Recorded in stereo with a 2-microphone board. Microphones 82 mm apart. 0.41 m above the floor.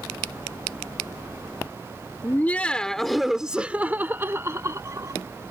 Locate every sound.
2.2 s laughter: 25° left (ahead or behind); by 5.2 s 40° right (ahead or behind)